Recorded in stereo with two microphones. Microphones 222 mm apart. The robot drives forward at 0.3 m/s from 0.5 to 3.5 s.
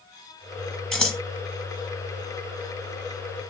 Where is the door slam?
No door slam in this recording.